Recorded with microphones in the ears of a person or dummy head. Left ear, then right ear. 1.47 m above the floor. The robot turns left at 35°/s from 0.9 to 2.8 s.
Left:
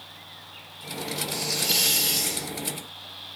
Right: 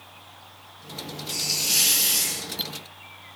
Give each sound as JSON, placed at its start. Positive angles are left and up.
{"t": 1.3, "sound": "a hiss", "azimuth_deg": -95, "distance_m": 2.5}